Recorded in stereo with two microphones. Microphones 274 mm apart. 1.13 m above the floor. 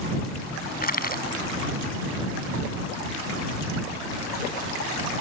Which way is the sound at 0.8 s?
30° left (ahead or behind).